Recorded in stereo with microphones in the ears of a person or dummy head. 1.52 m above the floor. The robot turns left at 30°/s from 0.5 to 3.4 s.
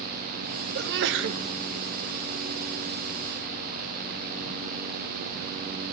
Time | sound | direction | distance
0.8 | a sneeze | 60° right (ahead or behind) | 1.0 m